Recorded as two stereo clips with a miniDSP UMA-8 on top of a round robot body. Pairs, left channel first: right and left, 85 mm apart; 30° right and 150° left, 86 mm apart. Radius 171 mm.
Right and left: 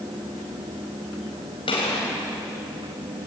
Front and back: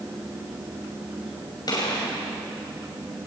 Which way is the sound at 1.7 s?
75° right.